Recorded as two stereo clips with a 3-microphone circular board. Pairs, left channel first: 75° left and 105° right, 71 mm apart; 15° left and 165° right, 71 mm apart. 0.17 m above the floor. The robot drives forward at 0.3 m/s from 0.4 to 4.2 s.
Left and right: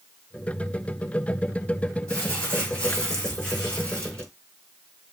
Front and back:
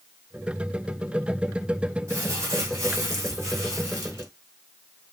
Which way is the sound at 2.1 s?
150° left.